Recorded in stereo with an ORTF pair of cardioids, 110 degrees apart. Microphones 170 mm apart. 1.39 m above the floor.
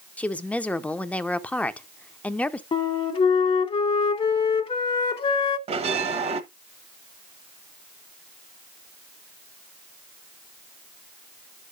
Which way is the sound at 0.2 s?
10° left.